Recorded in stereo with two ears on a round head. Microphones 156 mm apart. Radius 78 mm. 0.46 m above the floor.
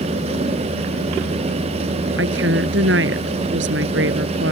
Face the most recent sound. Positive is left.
turn(degrees=-80)